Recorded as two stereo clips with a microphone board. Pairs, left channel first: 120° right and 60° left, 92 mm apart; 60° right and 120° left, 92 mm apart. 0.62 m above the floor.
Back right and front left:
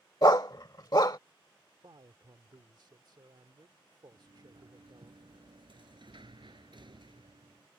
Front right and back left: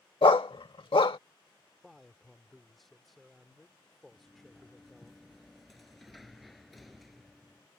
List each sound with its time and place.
0.2 s a dog barking: 80° right
1.8 s a man speaking: 30° left
4.1 s a sliding door: 30° left